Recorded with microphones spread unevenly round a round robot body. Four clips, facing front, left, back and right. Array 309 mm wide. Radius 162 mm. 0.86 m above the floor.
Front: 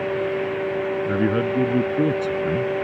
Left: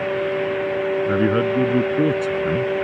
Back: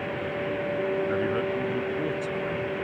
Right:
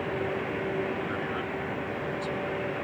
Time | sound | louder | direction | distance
1.1 | a man speaking | left 14 dB, front 5 dB | 55° left | ?